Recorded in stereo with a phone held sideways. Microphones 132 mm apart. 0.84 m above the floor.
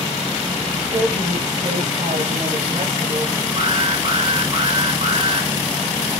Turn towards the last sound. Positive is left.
turn(degrees=-40)  # may be behind; listen again after turning